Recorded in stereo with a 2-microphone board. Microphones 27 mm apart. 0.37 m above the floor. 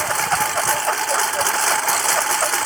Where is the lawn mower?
5° right (ahead or behind).